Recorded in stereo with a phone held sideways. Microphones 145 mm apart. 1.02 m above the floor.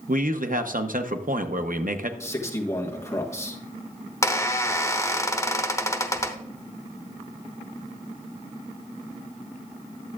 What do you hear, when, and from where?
0.1 s a man speaking: 70° right (ahead or behind), 0.7 m
2.2 s a man speaking: 20° left (ahead or behind), 1.5 m
4.2 s a squeak: 20° left (ahead or behind), 0.7 m